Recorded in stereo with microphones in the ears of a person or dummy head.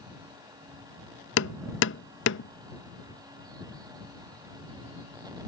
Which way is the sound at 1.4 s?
70° left (ahead or behind).